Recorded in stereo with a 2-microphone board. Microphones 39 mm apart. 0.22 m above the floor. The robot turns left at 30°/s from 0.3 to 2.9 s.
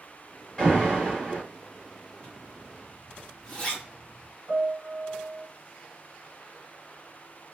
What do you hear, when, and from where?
0.6 s an alarm: 10° left (ahead or behind), 2.0 m; by 1.4 s 20° left (ahead or behind), 2.0 m
2.2 s a zipper: 25° left (ahead or behind), 1.4 m
4.5 s a piano: 60° right (ahead or behind), 0.9 m